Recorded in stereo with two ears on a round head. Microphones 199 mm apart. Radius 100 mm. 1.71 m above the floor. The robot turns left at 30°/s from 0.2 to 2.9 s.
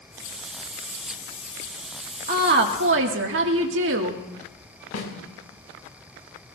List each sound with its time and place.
2.3 s a woman speaking: 35° right (ahead or behind), 2 m; by 4.2 s 55° right (ahead or behind), 2 m
4.9 s a snare drum: 75° left (ahead or behind), 4.5 m